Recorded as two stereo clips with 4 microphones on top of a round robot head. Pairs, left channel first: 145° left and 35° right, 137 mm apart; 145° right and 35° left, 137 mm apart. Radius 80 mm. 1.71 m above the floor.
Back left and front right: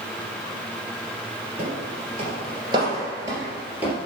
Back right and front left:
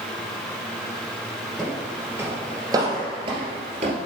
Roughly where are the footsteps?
Ahead right.